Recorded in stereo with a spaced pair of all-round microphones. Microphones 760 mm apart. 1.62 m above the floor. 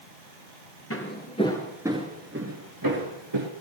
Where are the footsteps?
15° left (ahead or behind), 1.9 m; by 3.5 s 40° right (ahead or behind), 2.0 m.